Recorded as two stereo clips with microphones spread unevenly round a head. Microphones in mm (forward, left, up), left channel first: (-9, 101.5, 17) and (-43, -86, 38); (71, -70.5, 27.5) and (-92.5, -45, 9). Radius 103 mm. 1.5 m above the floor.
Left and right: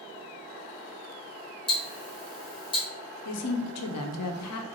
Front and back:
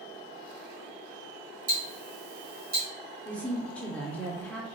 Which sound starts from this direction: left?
A woman speaking, at 3.2 s.